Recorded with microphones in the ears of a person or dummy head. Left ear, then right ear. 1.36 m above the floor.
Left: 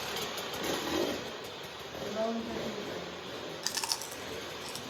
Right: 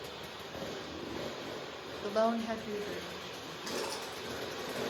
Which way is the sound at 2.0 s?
60° right (ahead or behind).